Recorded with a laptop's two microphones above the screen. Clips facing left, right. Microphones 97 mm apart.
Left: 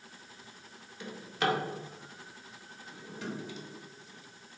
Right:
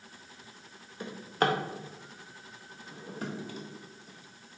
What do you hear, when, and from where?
1.0 s a drawer: 45° right (ahead or behind), 0.6 m